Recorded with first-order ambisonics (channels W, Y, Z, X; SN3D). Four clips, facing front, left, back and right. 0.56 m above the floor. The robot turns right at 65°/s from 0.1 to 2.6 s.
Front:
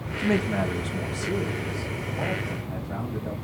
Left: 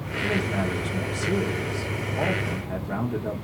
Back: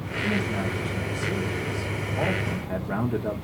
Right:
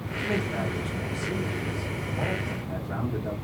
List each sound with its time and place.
0.2 s a man speaking: 5° right, 0.9 m; by 3.3 s 150° left, 0.9 m